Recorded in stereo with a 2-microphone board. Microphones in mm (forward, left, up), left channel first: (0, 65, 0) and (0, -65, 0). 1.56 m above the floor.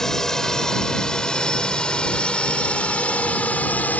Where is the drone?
5° left (ahead or behind); by 4.0 s 10° left (ahead or behind).